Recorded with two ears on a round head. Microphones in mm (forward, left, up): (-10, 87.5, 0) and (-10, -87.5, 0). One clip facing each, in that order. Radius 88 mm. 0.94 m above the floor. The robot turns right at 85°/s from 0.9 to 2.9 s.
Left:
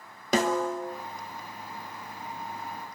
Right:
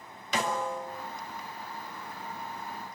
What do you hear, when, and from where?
0.3 s a snare drum: 35° left (ahead or behind), 2.5 m; by 0.9 s 40° left (ahead or behind), 2.5 m